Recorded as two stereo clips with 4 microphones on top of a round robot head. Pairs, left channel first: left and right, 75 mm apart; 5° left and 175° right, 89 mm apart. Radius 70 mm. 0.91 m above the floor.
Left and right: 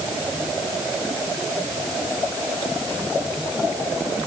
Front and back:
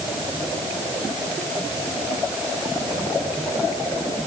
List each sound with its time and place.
Only background noise.